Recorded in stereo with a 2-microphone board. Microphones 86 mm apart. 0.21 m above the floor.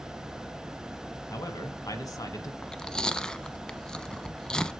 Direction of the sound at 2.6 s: 10° left (ahead or behind).